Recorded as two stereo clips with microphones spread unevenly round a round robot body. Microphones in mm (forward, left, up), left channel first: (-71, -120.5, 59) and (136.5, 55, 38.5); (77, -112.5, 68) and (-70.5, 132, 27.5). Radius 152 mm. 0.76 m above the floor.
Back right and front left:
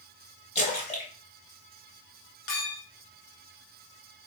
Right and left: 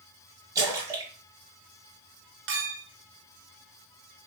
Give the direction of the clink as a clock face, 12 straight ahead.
6 o'clock.